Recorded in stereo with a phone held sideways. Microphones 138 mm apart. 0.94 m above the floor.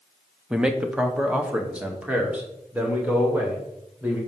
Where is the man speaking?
5° right (ahead or behind), 0.9 m; by 4.2 s 10° right (ahead or behind), 3 m.